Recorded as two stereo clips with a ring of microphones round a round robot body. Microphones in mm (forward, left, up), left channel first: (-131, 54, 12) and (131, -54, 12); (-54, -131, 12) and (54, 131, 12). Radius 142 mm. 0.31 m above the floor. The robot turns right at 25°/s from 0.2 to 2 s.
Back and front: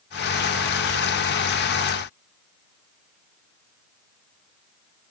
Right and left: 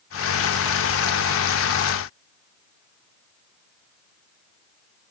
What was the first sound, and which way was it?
Only background noise.